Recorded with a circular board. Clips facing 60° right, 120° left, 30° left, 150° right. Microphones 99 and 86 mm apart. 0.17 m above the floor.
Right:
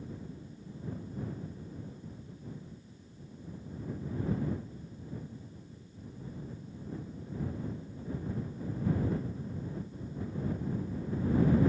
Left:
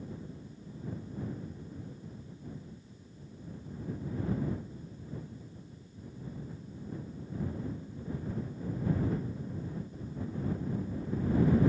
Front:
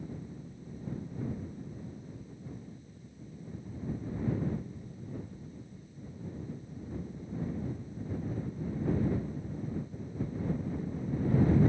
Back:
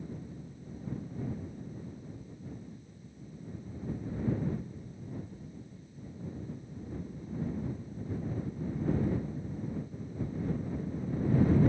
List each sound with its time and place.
Only background noise.